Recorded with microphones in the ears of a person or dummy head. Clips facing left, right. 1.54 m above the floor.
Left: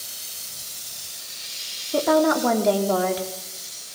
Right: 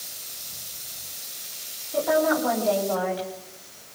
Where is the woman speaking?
60° left (ahead or behind), 4 m.